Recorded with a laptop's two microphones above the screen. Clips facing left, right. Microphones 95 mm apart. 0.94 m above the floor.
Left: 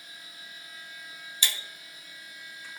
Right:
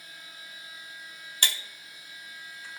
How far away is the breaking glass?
About 0.7 m.